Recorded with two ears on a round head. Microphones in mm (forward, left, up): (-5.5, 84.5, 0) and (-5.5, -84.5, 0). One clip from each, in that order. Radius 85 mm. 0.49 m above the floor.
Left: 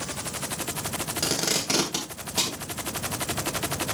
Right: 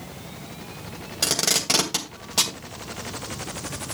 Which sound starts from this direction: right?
Tape being pulled, at 1.2 s.